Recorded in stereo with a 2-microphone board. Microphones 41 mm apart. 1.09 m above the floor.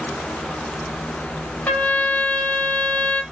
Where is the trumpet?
35° left (ahead or behind), 4 m.